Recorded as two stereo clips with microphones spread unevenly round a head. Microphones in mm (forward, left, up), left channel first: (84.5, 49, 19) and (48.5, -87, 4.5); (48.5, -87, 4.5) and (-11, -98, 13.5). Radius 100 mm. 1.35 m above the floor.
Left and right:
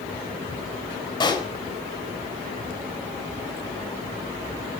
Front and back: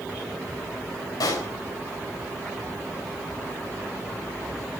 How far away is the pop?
About 3.5 m.